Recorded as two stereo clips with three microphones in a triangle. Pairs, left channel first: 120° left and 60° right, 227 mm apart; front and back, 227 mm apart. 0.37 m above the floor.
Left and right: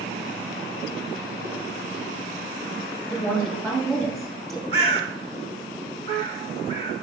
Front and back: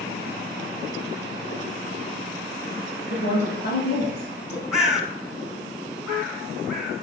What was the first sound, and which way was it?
A woman speaking, 30° left.